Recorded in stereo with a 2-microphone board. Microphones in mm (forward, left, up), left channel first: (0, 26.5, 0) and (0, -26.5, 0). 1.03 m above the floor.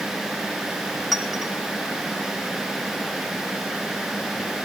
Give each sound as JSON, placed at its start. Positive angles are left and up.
{"t": 1.1, "sound": "a clink", "side_deg": 5, "distance_m": 4.0}